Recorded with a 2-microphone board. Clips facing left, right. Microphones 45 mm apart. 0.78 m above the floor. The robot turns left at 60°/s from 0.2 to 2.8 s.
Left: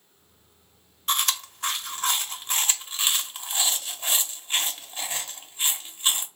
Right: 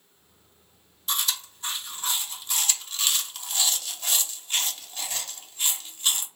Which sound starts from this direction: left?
Chewing, at 1.1 s.